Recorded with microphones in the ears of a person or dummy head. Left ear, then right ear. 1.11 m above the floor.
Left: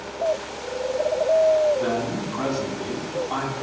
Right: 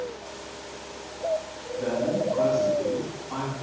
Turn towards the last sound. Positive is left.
turn(degrees=75)  # may be behind; listen again after turning